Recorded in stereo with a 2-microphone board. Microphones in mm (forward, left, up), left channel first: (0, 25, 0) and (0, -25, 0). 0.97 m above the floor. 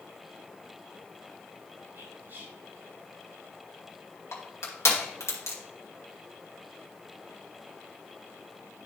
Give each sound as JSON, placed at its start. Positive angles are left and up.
{"t": 1.9, "sound": "whispering", "side_deg": -60, "distance_m": 3.0}
{"t": 4.3, "sound": "crushing", "side_deg": 70, "distance_m": 2.0}